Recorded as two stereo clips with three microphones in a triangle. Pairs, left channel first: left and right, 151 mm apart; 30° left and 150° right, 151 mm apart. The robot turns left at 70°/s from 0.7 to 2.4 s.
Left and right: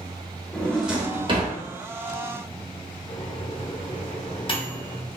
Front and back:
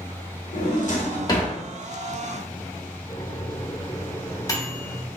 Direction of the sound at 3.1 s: 75° left.